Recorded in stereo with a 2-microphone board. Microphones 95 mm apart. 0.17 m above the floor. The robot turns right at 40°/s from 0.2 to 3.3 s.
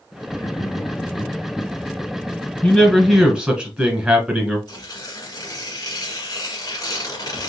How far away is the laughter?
About 1.6 m.